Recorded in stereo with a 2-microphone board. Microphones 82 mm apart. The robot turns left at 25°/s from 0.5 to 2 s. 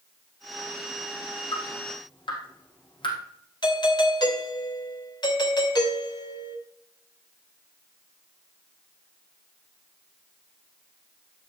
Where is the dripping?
80° left, 4.5 m; by 3.2 s 85° left, 4.5 m.